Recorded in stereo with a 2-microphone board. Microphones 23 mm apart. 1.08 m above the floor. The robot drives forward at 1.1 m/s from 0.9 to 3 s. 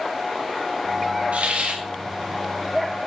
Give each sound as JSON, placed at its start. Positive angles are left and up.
{"t": 1.3, "sound": "a hiss", "side_deg": -80, "distance_m": 1.4}